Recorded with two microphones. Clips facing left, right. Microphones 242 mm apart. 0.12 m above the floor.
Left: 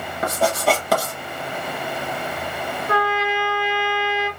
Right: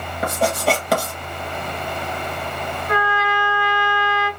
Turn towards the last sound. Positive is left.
turn(degrees=30)  # may be behind; listen again after turning